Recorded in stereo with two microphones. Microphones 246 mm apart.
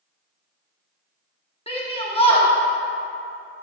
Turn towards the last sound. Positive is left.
turn(degrees=25)  # may be behind; listen again after turning